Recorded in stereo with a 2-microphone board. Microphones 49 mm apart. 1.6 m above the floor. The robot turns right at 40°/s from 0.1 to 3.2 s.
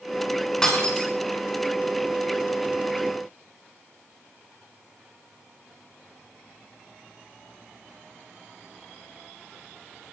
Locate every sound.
0.6 s breaking glass: 10° left (ahead or behind), 6.5 m; by 1.1 s 30° left (ahead or behind), 6.5 m